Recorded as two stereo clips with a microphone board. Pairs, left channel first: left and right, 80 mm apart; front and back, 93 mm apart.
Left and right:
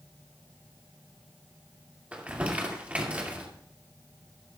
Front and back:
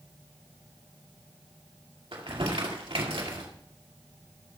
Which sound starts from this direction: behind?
Crumpling, at 2.1 s.